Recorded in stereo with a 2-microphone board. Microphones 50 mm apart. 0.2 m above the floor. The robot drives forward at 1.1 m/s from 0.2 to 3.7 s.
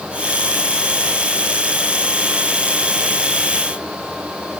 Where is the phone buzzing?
I don't hear a phone buzzing.